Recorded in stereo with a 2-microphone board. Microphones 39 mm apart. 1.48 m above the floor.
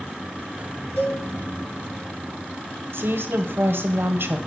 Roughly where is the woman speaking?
Right.